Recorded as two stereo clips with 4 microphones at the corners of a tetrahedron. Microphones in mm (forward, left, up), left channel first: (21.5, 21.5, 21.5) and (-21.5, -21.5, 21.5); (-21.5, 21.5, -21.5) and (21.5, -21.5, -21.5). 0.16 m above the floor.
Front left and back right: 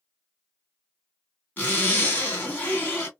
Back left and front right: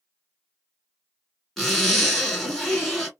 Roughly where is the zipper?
Ahead left.